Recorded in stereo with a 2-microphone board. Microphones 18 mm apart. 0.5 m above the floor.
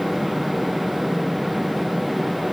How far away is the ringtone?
No ringtone in this recording.